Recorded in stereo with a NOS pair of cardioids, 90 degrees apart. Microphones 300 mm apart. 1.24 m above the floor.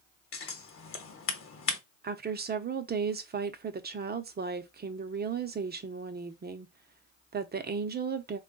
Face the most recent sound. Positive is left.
turn(degrees=-35)